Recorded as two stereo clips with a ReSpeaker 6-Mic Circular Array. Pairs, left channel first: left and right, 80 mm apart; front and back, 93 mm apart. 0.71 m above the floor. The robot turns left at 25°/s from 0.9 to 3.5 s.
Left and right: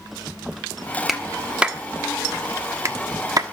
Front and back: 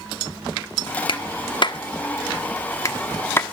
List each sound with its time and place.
1.1 s a clap: 5° right, 1.3 m; by 3.4 s 60° right, 1.3 m